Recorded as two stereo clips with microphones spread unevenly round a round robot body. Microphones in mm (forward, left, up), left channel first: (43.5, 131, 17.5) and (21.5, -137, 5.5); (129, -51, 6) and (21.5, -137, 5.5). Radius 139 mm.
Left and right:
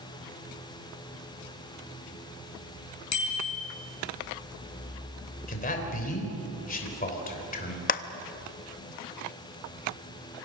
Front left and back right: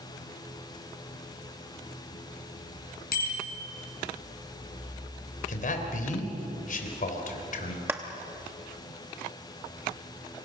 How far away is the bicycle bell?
About 5.5 m.